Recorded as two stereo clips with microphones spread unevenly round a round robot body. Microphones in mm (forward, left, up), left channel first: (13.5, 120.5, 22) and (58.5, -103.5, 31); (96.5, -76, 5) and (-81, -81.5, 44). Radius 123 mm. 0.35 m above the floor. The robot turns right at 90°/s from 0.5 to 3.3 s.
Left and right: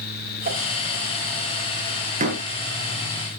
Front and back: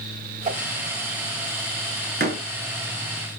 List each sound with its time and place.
0.5 s a whoosh: 130° right, 2 m; by 0.6 s 120° right, 2 m
2.2 s a door slam: 145° right, 3 m; by 2.4 s 125° right, 3 m